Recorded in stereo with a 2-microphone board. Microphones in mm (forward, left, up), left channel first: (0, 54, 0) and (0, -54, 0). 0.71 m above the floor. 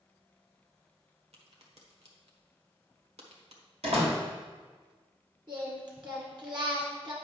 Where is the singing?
45° right (ahead or behind), 2.0 m.